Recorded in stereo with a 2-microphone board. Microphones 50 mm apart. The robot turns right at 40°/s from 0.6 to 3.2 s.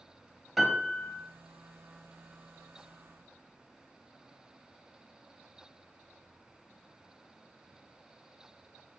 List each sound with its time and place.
0.6 s a piano: 5° right (ahead or behind), 0.8 m; by 1.2 s 10° left (ahead or behind), 0.8 m